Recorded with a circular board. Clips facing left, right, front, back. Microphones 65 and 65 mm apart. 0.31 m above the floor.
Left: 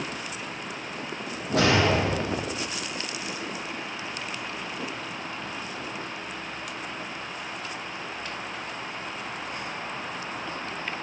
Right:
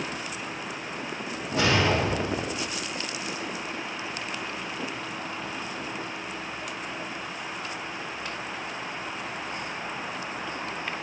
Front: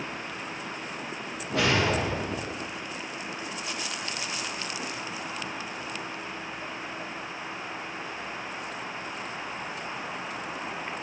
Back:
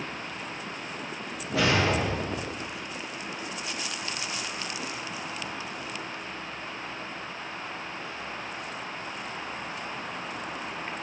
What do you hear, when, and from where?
1.5 s a whoosh: 90° left, 5.5 m